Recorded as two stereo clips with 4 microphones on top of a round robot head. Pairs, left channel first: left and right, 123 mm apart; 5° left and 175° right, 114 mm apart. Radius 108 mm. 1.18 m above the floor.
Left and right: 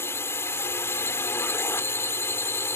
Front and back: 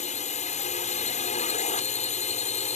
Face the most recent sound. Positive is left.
turn(degrees=20)